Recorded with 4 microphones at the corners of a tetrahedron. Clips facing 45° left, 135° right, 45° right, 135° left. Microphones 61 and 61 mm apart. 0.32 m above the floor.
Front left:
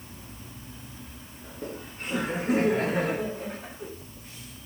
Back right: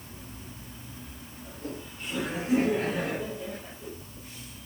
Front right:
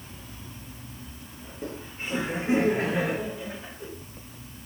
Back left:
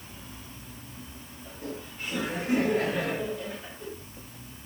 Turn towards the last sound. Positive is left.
turn(degrees=35)